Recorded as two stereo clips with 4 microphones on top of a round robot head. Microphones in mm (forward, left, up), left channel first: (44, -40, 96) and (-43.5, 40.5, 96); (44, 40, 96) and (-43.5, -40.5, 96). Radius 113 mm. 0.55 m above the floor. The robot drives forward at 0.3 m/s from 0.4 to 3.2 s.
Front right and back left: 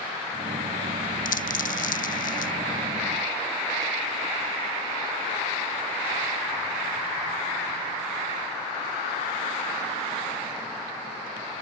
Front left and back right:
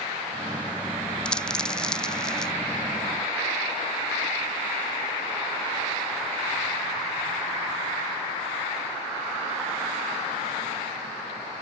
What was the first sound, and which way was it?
A dropped coin, 40° right.